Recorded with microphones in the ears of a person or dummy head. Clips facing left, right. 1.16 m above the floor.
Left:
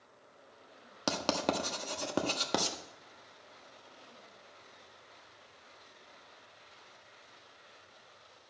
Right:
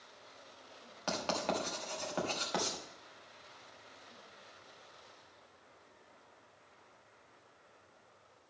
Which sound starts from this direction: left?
Writing, at 1.1 s.